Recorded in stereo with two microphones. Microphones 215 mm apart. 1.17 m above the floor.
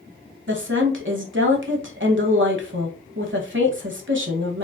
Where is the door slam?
I don't hear a door slam.